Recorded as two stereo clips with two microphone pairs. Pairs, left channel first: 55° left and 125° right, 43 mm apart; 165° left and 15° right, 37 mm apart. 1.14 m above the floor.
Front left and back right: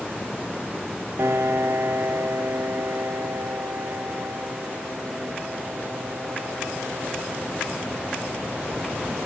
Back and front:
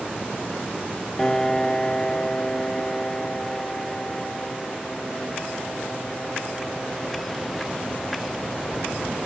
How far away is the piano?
About 0.8 m.